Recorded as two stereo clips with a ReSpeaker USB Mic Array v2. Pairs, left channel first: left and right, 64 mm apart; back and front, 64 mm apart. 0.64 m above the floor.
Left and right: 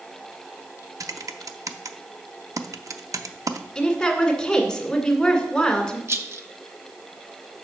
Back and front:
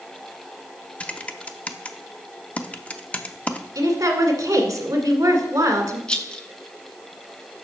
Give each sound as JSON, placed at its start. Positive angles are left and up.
{"t": 1.0, "sound": "typing on a keyboard", "azimuth_deg": -115, "distance_m": 0.5}
{"t": 3.8, "sound": "a woman speaking", "azimuth_deg": 10, "distance_m": 1.8}
{"t": 6.1, "sound": "a rattle", "azimuth_deg": -110, "distance_m": 0.6}